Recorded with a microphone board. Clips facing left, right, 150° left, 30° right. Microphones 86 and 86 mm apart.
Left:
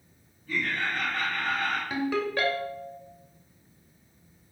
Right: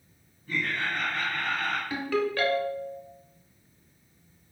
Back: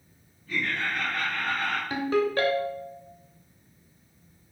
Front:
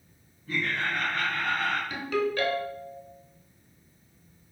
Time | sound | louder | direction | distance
0.5 | laughter | even, even | 50° right | 1.4 m
1.9 | a ringtone | right 2 dB, back 3 dB | 150° left | 0.7 m